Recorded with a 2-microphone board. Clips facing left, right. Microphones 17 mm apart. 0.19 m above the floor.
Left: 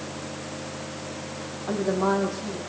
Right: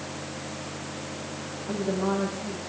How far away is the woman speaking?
About 6.5 m.